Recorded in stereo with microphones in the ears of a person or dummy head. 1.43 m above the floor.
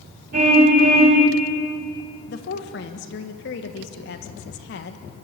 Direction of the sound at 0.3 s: 45° right (ahead or behind).